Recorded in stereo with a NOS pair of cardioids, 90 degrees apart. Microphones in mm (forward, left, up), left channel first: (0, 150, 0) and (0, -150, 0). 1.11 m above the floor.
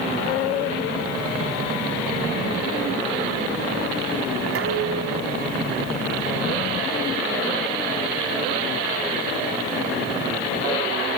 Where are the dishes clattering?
50° right, 6.5 m.